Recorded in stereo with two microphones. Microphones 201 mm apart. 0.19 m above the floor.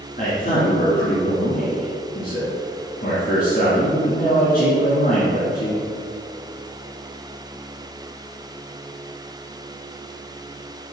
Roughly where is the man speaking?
Left.